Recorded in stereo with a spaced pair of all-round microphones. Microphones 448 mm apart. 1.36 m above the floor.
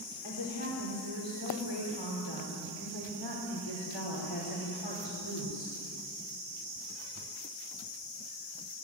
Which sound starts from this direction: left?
A woman speaking, at 0.2 s.